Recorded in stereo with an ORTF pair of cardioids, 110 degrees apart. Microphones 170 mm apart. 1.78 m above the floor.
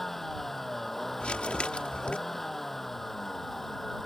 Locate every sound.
0.0 s a vehicle: straight ahead
1.2 s crumpling: 5° left